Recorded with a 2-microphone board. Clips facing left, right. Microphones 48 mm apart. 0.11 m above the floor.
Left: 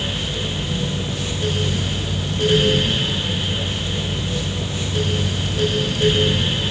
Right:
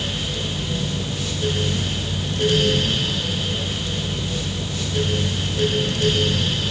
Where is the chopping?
No chopping in this recording.